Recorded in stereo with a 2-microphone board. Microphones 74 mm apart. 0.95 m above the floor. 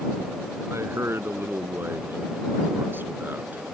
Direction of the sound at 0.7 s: 35° right (ahead or behind).